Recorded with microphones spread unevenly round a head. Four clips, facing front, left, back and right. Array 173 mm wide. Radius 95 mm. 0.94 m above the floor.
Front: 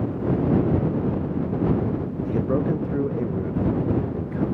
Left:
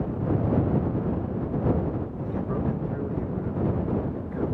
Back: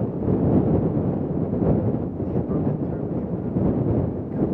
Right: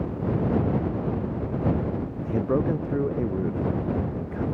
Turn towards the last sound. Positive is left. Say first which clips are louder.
# right 6 dB, front 3 dB
turn(degrees=-40)